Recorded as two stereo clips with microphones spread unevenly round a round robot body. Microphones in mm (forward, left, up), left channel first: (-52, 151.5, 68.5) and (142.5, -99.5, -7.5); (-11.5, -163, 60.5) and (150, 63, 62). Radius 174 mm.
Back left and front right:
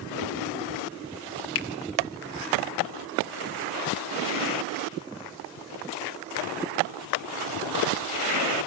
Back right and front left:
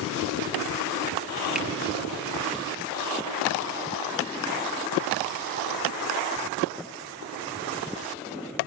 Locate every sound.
1.6 s a finger snap: 140° left, 1.3 m